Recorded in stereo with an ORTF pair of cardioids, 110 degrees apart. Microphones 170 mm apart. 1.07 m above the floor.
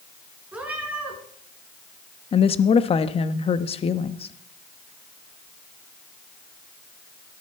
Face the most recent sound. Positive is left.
turn(degrees=35)